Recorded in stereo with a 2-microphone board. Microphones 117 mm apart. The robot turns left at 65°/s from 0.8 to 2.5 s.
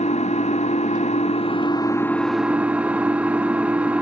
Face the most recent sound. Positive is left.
turn(degrees=-10)